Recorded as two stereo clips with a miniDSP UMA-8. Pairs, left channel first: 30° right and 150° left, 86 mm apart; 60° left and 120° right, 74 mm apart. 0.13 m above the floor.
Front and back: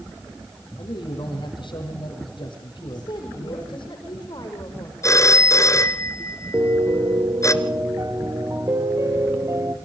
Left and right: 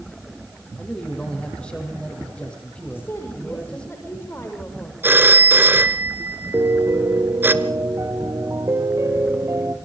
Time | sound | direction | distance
0.8 | a man speaking | 15° right | 6 m
2.9 | a woman speaking | straight ahead | 7.5 m
5.0 | a phone ringing | 70° right | 1.5 m
6.5 | a piano | 160° right | 2.0 m